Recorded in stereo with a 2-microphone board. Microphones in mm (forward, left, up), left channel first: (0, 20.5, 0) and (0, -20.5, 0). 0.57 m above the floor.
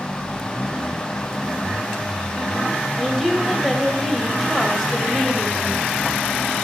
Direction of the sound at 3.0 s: Centre (ahead or behind).